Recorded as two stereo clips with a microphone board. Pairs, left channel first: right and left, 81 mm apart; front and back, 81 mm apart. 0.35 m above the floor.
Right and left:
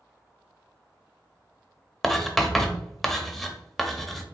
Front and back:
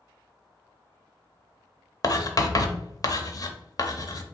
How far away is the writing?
About 0.6 m.